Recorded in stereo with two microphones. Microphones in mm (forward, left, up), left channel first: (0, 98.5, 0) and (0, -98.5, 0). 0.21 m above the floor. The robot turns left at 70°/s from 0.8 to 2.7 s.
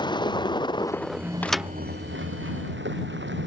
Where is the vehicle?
20° left; by 3.5 s 110° right.